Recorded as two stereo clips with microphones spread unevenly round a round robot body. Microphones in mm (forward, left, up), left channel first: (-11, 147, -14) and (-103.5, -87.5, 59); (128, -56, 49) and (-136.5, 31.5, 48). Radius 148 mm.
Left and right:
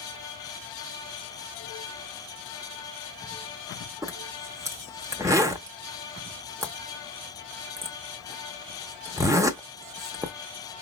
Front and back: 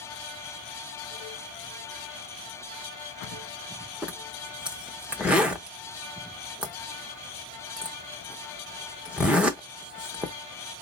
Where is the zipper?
115° right, 0.5 m.